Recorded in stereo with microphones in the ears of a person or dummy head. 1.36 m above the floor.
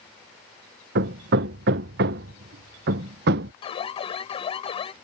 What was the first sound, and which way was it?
Hammering, 65° right (ahead or behind).